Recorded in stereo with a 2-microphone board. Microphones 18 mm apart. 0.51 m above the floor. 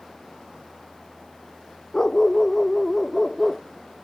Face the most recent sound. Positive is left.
turn(degrees=10)  # may be behind; listen again after turning